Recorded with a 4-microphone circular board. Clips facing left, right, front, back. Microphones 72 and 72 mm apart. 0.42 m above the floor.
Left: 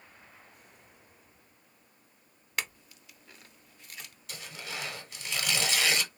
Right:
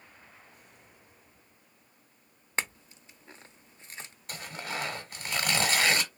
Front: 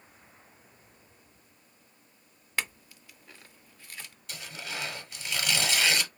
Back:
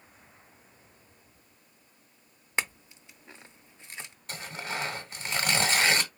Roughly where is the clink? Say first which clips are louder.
Right 3 dB, back 2 dB; behind right.